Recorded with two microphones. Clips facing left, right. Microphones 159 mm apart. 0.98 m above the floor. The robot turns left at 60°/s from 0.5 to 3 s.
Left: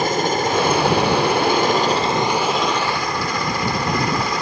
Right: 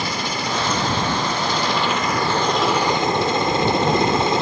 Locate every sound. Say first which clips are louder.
0.0 s a helicopter: left 7 dB; 50° left (ahead or behind); by 4.4 s 25° right (ahead or behind)